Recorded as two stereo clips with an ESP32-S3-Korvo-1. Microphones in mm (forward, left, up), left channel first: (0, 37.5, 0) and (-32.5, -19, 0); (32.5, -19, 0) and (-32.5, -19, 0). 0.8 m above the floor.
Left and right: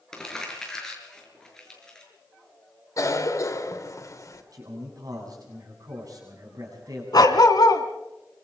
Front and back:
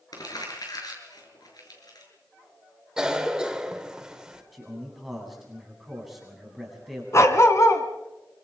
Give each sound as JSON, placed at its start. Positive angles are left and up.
{"t": 0.1, "sound": "crumpling", "azimuth_deg": -20, "distance_m": 6.0}
{"t": 3.0, "sound": "a cough", "azimuth_deg": 100, "distance_m": 2.5}
{"t": 4.5, "sound": "a man speaking", "azimuth_deg": -95, "distance_m": 8.5}
{"t": 7.1, "sound": "a dog barking", "azimuth_deg": 45, "distance_m": 2.5}